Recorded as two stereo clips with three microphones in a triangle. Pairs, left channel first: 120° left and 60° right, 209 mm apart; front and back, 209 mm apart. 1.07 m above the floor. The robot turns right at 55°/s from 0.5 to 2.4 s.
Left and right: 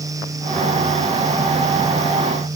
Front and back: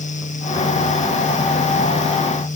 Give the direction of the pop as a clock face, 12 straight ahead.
No pop in this recording.